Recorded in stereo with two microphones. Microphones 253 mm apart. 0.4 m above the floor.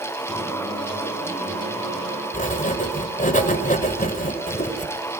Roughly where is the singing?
Right.